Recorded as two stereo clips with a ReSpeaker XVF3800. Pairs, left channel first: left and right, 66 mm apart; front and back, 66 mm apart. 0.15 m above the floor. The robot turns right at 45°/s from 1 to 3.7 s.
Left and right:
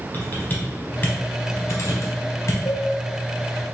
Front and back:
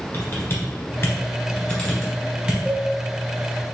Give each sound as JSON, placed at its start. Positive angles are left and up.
{"t": 0.1, "sound": "typing on a keyboard", "azimuth_deg": 40, "distance_m": 1.7}
{"t": 2.6, "sound": "a cowbell", "azimuth_deg": 105, "distance_m": 1.5}